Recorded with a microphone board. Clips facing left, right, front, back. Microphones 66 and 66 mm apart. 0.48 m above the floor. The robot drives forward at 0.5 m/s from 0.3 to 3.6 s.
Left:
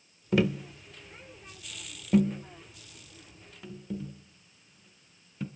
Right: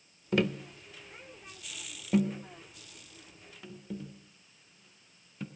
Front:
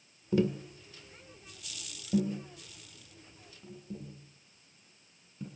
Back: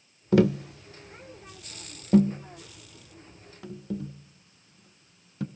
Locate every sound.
0.3 s tapping: 175° left, 0.5 m; by 5.5 s straight behind, 2 m